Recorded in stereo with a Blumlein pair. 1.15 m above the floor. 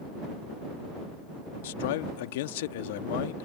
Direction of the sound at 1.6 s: 50° left.